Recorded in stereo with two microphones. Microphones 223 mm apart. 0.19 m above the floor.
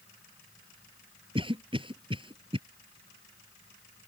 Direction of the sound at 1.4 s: 25° right (ahead or behind).